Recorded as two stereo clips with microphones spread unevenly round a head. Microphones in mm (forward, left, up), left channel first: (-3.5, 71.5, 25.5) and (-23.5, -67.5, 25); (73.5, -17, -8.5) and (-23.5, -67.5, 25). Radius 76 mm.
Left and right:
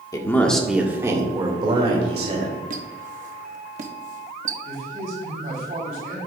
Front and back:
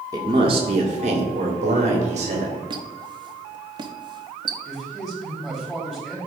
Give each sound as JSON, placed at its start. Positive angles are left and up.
{"t": 0.1, "sound": "a man speaking", "azimuth_deg": 145, "distance_m": 1.5}
{"t": 2.7, "sound": "a squeak", "azimuth_deg": -125, "distance_m": 1.0}
{"t": 4.7, "sound": "a man speaking", "azimuth_deg": -65, "distance_m": 3.5}